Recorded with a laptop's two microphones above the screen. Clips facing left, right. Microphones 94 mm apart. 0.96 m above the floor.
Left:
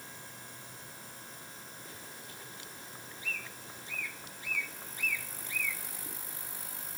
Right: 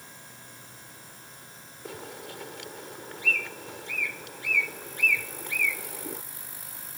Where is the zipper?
No zipper in this recording.